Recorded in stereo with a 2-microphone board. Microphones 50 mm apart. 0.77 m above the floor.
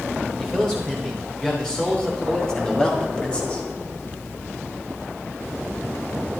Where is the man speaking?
10° left (ahead or behind), 4 m; by 3.6 s 25° left (ahead or behind), 2.0 m.